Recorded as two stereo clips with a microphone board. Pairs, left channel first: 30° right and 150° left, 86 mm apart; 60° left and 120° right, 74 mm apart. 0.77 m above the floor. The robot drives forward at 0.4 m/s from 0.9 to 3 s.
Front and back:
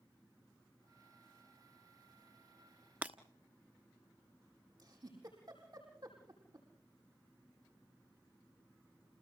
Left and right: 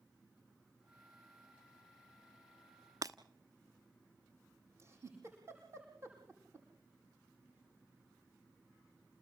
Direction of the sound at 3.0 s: 140° right.